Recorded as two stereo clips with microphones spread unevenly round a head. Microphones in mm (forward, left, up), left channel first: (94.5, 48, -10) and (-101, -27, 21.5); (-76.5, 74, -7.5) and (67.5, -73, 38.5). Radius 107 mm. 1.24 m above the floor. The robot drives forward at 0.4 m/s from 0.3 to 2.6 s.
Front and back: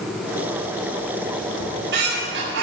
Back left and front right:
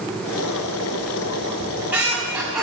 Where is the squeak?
125° right, 4.5 m; by 2.6 s 130° right, 4.5 m.